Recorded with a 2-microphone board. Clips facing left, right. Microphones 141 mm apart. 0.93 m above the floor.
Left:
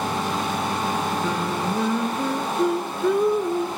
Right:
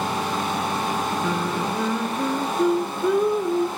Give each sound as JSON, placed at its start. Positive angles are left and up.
{"t": 1.2, "sound": "singing", "side_deg": 0, "distance_m": 0.7}